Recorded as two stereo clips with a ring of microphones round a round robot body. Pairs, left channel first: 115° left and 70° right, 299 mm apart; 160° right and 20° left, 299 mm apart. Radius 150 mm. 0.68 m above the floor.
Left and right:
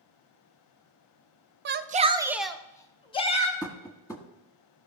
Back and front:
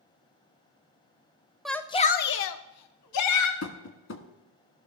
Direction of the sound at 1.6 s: 65° right.